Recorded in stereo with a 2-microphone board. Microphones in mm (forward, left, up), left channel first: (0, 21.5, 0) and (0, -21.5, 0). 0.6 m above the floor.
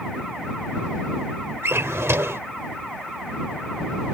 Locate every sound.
1.6 s a drawer: 80° right